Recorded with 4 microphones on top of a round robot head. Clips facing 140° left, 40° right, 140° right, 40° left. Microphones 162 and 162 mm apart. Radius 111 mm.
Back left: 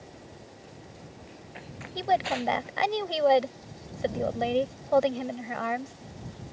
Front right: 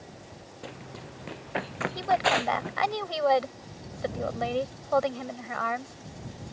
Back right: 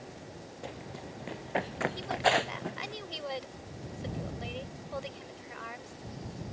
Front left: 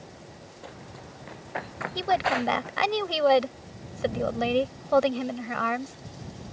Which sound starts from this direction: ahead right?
Running footsteps, at 0.6 s.